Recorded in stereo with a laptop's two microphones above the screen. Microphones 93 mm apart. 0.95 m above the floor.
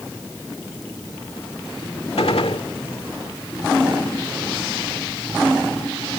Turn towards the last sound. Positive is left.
turn(degrees=85)